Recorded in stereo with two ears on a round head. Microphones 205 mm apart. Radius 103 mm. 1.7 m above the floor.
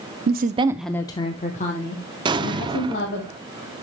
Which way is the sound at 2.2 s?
20° right (ahead or behind).